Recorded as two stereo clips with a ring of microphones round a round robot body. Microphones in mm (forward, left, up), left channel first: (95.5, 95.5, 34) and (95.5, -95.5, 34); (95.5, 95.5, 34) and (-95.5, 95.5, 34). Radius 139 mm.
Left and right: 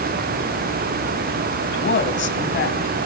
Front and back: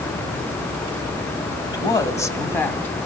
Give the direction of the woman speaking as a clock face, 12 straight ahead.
10 o'clock.